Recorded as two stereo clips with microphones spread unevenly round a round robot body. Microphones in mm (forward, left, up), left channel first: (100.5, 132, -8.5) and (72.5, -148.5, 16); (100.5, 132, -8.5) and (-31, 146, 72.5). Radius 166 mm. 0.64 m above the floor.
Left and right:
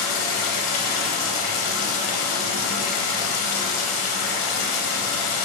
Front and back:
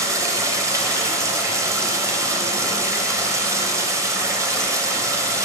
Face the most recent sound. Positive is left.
turn(degrees=110)